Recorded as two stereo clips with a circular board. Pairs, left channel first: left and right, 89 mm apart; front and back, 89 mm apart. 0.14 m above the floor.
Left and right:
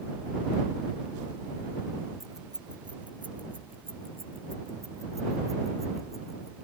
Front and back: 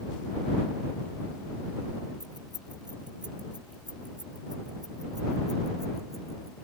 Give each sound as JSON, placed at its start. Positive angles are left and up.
{"t": 2.2, "sound": "keys jangling", "azimuth_deg": -175}